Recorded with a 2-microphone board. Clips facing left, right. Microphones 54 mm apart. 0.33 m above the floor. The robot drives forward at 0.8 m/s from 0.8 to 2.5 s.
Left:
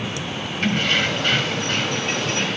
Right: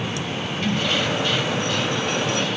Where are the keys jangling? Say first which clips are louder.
Left 3 dB; 50° left (ahead or behind), 1.3 m; by 2.6 s 40° left (ahead or behind), 1.7 m.